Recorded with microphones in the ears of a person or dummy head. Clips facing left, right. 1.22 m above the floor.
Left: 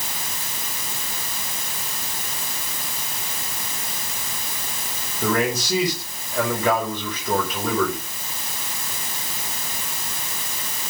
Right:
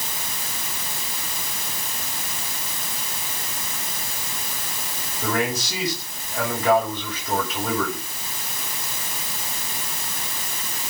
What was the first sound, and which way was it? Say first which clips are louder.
A man speaking: left 3 dB; 85° left.